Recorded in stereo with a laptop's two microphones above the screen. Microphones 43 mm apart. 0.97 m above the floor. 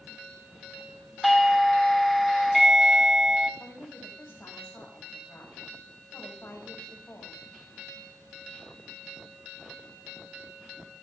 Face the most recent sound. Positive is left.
turn(degrees=60)  # may be behind; listen again after turning